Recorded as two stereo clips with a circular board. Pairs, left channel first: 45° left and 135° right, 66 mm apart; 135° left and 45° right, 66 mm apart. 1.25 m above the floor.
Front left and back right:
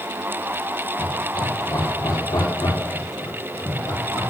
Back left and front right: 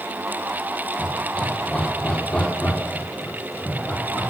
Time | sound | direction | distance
1.0 | laughter | 55° left | 4.5 m